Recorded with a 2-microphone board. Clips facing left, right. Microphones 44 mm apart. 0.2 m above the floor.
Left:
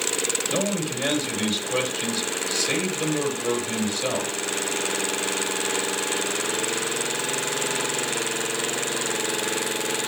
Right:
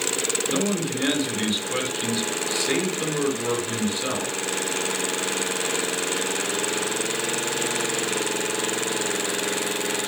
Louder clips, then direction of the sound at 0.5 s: Right 1 dB; 15° right (ahead or behind).